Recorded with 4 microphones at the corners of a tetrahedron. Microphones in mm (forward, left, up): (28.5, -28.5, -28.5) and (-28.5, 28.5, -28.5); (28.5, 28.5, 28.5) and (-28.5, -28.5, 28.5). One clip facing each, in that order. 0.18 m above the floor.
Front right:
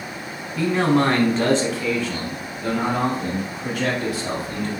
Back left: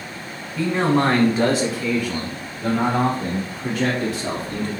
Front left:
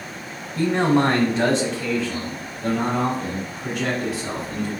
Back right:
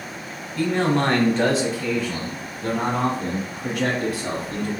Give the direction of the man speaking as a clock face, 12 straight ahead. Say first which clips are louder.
Even, front left 2 dB; 11 o'clock.